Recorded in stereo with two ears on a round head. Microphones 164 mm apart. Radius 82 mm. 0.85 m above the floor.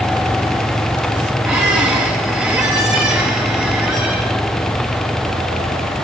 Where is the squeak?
5° right (ahead or behind), 4.5 m.